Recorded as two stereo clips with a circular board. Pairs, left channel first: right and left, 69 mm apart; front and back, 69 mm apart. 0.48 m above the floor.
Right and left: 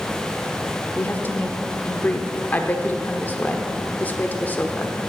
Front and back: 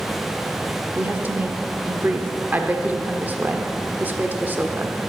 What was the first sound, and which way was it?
A woman speaking, 135° right.